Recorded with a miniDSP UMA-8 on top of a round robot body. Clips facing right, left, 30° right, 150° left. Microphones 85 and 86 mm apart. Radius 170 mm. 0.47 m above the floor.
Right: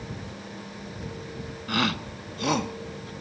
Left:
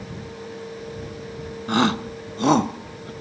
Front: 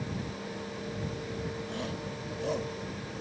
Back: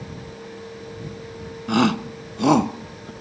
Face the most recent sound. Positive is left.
turn(degrees=140)